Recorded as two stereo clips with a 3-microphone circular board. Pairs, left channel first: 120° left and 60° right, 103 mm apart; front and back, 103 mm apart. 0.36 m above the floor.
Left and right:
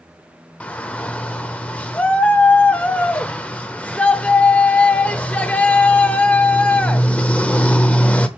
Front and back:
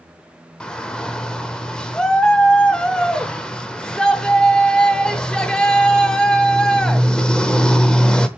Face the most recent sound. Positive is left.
turn(degrees=65)